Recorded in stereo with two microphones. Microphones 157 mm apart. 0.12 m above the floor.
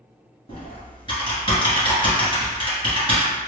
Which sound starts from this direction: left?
Typing on a keyboard, at 0.5 s.